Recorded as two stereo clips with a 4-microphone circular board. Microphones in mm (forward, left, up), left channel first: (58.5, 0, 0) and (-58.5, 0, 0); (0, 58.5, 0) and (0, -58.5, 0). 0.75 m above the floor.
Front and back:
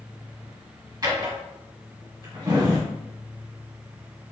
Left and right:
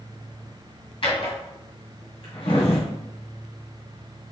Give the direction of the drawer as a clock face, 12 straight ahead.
8 o'clock.